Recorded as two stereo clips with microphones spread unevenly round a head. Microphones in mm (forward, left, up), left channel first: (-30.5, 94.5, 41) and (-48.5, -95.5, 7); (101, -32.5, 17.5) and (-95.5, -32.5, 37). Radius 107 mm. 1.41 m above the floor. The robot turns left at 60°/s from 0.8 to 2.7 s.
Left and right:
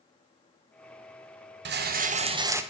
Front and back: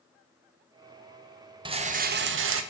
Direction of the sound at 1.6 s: 110° right.